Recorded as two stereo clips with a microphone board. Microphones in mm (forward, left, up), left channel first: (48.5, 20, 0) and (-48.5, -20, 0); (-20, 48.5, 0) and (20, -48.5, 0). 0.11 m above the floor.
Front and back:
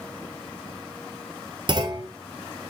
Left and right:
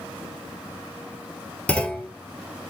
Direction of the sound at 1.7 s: 170° right.